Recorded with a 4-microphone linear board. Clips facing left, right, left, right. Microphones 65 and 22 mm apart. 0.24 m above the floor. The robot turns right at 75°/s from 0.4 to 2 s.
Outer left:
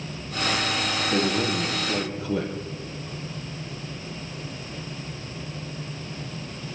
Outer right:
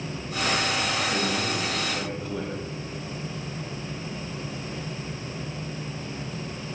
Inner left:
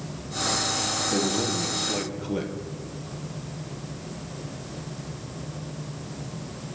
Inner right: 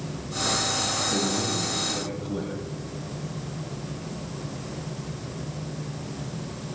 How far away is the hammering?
No hammering in this recording.